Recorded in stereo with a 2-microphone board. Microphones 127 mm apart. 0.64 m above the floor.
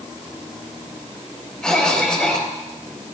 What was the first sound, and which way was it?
A cough, 5° left (ahead or behind).